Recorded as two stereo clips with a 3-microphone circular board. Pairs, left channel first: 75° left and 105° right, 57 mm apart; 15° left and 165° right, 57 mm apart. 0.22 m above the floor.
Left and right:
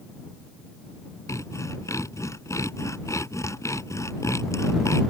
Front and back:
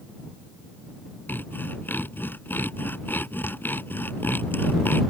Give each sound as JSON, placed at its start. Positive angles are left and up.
{"t": 1.3, "sound": "sawing", "azimuth_deg": 65}